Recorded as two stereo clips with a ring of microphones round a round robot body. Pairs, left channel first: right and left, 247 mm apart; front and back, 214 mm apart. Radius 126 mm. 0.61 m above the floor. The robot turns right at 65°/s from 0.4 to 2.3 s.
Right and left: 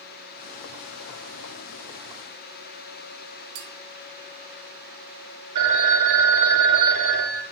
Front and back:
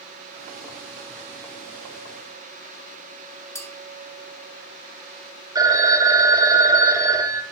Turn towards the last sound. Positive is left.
turn(degrees=105)